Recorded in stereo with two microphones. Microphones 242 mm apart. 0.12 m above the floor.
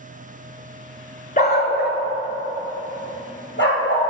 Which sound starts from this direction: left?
A dog barking, at 1.4 s.